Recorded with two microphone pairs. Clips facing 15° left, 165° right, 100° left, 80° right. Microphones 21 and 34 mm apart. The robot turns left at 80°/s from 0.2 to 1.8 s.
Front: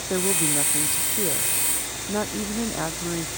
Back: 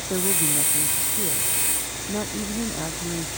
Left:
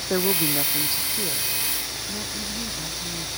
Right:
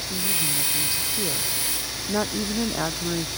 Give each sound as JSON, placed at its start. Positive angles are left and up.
{"t": 0.1, "sound": "a woman speaking", "azimuth_deg": 90}